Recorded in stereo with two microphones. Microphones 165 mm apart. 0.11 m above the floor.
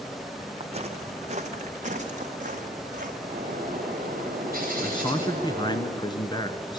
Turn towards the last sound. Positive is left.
turn(degrees=25)  # may be behind; listen again after turning